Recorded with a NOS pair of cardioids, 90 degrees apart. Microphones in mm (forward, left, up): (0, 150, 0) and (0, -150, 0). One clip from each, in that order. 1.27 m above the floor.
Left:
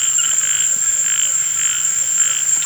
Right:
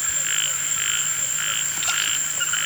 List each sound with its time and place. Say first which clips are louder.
0.0 s an insect: left 5 dB; 50° left